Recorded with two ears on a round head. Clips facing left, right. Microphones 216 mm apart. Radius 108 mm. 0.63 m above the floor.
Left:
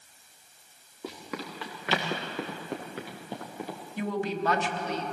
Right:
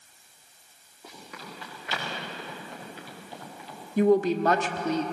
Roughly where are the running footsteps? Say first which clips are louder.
Left 7 dB; left.